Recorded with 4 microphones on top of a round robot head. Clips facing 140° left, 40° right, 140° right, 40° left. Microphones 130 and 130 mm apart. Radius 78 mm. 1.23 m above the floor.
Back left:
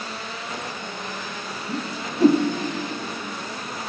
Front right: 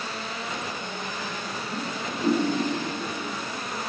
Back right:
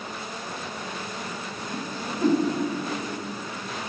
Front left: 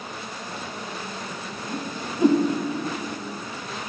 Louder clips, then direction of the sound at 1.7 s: Back left 4 dB, front left 1 dB; 115° left.